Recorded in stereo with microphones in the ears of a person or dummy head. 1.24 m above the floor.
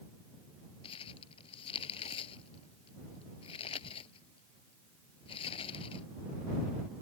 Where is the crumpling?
35° left (ahead or behind).